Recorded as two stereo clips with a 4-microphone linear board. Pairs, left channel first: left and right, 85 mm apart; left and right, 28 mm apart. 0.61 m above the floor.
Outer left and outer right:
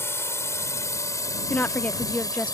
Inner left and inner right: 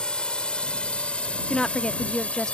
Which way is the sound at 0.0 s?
30° left (ahead or behind).